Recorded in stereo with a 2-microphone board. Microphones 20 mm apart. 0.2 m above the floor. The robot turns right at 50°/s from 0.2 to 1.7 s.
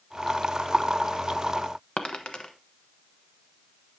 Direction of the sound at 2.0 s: 55° left (ahead or behind).